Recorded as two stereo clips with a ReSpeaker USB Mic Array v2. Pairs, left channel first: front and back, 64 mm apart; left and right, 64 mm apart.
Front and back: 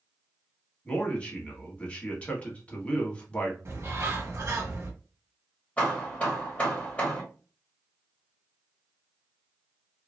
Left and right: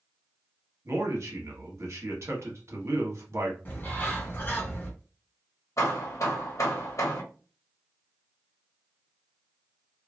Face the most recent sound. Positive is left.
turn(degrees=65)